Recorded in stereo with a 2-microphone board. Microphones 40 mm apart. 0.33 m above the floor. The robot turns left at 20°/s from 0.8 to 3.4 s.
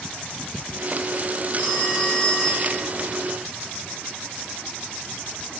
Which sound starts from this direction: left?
A phone ringing, at 1.6 s.